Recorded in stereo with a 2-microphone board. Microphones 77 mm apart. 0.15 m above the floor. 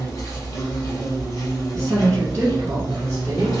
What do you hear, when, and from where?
0.0 s an insect: 40° left (ahead or behind), 2.0 m
1.7 s a woman speaking: 30° right (ahead or behind), 1.2 m